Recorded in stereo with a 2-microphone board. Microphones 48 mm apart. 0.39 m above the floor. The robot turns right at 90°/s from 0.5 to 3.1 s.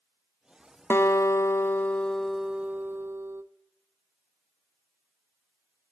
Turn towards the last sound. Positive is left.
turn(degrees=-110)